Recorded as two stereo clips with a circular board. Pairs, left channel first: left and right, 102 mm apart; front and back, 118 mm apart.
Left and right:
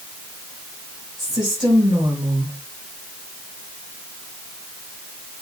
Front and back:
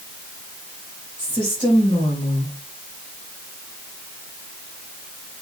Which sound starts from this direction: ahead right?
A woman speaking, at 1.2 s.